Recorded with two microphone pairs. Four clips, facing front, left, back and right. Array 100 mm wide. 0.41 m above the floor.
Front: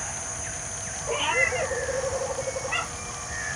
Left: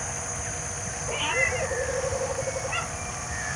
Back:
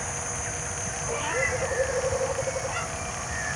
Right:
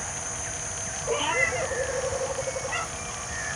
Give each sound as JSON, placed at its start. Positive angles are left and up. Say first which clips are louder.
{"t": 1.1, "sound": "a cat meowing", "louder": "right 2 dB, front 3 dB", "azimuth_deg": -60, "distance_m": 4.0}